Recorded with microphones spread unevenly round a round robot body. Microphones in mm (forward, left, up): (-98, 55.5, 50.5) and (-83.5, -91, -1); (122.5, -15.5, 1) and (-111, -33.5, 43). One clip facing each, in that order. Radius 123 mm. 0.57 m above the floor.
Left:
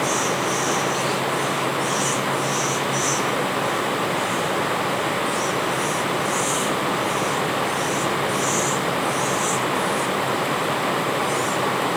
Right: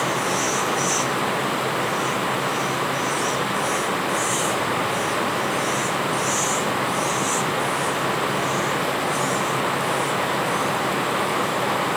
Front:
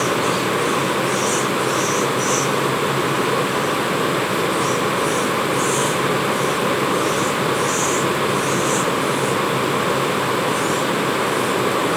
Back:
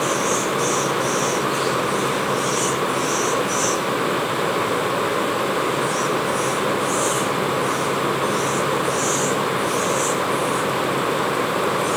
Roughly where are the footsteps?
I don't hear footsteps.